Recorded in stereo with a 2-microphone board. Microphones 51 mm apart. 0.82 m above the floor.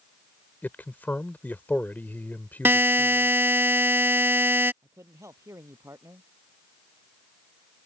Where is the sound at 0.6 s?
40° left (ahead or behind).